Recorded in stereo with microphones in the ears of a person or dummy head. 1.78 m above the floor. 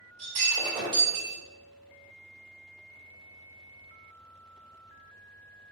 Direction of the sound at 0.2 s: 30° right (ahead or behind).